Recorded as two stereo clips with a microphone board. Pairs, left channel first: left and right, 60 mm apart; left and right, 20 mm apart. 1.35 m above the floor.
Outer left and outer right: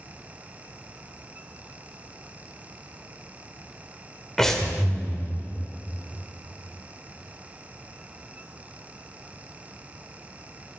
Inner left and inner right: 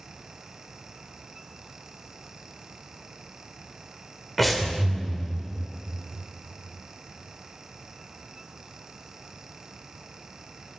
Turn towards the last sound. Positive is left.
turn(degrees=5)  # may be behind; listen again after turning